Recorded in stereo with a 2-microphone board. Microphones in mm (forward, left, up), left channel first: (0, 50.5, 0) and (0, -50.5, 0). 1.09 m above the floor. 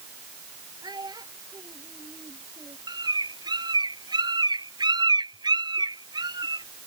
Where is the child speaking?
45° right (ahead or behind).